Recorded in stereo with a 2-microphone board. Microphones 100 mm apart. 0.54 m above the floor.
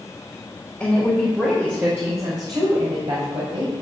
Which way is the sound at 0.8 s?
10° left (ahead or behind).